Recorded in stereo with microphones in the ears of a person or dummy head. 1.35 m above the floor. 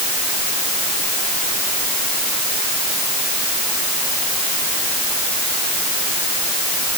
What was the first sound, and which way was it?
Only background noise.